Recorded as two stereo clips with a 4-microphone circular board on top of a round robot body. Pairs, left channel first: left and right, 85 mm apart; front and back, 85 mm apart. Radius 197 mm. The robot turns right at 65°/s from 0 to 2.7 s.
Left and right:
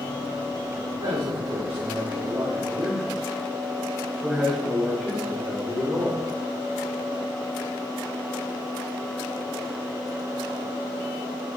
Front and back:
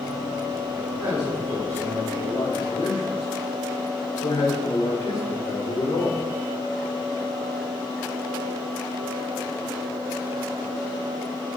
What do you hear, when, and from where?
1.0 s a man speaking: 115° right, 3.5 m; by 6.3 s 5° right, 3.5 m